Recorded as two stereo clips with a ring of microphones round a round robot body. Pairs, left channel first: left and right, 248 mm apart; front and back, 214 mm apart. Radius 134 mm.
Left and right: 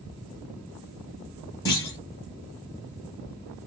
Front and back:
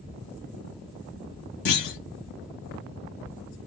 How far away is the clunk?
About 0.9 m.